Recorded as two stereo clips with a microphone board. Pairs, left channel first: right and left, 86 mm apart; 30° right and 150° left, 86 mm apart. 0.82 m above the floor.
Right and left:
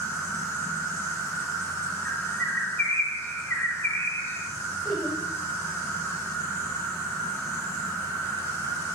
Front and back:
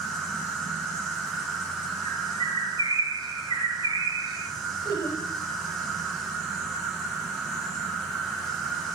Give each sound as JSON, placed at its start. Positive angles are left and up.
{"t": 0.0, "sound": "an insect", "azimuth_deg": -120, "distance_m": 1.7}
{"t": 2.0, "sound": "a bird", "azimuth_deg": -25, "distance_m": 1.3}
{"t": 4.8, "sound": "laughter", "azimuth_deg": -5, "distance_m": 2.5}